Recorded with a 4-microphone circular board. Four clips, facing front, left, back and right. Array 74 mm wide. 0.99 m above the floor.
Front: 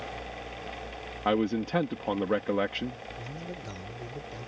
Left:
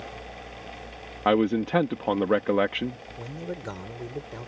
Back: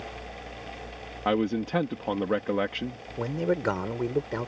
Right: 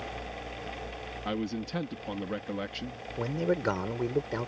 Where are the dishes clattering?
No dishes clattering in this recording.